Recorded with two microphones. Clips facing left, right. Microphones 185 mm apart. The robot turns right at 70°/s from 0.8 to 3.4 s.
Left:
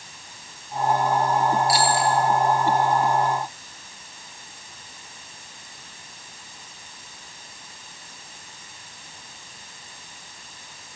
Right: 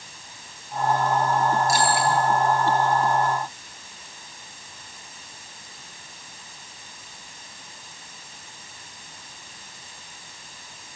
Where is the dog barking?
No dog barking in this recording.